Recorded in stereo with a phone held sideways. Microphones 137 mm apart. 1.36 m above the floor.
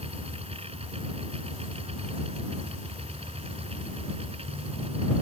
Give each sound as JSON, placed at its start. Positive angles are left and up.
{"t": 0.0, "sound": "a machine running", "side_deg": -45}